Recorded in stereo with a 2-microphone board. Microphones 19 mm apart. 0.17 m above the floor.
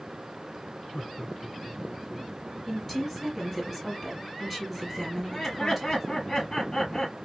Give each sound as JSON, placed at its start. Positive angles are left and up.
{"t": 0.9, "sound": "laughter", "side_deg": 45, "distance_m": 1.9}
{"t": 2.7, "sound": "a woman speaking", "side_deg": 5, "distance_m": 3.5}
{"t": 5.2, "sound": "laughter", "side_deg": 45, "distance_m": 4.0}